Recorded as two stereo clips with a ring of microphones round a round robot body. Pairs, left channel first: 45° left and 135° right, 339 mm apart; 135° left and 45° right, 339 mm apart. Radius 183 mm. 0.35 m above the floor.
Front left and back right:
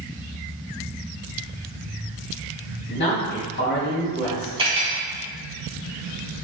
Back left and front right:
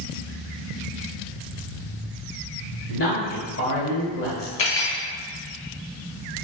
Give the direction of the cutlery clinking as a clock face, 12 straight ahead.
7 o'clock.